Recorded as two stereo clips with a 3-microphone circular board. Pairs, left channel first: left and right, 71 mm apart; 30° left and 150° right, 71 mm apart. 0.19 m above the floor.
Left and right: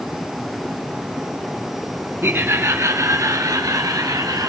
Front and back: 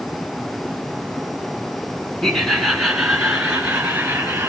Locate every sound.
2.2 s laughter: 50° right, 2.0 m; by 4.5 s 90° right, 4 m